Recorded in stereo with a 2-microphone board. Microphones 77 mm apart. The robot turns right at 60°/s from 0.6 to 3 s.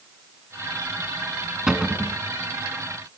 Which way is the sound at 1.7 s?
170° right.